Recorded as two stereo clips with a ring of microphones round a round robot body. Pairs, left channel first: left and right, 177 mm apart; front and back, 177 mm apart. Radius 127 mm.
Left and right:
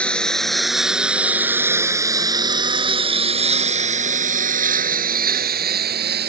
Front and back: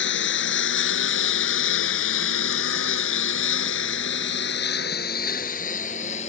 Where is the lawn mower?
5° left; by 6.3 s 65° right.